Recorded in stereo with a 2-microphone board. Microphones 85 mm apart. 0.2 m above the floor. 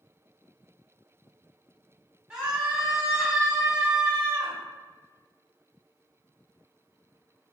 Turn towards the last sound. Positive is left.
turn(degrees=-10)  # may be behind; listen again after turning